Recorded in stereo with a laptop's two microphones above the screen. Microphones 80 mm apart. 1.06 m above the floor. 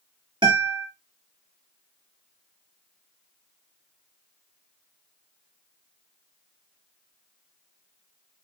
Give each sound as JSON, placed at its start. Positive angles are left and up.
{"t": 0.4, "sound": "a guitar", "side_deg": -65, "distance_m": 1.7}